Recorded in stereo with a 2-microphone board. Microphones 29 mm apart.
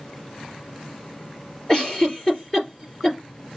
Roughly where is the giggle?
Centre.